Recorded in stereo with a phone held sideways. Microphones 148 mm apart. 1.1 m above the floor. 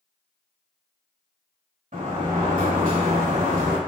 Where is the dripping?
I don't hear dripping.